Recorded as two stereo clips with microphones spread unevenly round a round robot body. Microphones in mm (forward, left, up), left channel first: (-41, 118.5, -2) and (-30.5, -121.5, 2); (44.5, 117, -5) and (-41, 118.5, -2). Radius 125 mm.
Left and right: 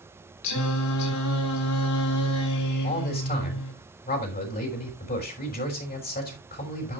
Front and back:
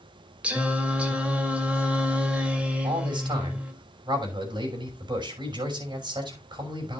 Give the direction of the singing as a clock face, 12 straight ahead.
9 o'clock.